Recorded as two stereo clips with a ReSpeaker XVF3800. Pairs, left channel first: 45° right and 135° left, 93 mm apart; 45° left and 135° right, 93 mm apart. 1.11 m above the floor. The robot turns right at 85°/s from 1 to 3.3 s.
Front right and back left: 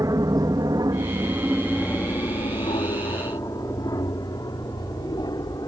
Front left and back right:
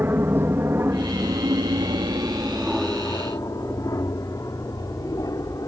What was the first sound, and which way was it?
An aircraft, 165° left.